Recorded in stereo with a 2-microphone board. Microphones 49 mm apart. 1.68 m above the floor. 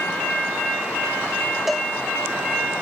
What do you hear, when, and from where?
1.7 s a cowbell: 5° right (ahead or behind)